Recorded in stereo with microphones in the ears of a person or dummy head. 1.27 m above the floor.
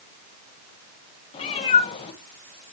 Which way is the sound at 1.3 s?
30° left (ahead or behind).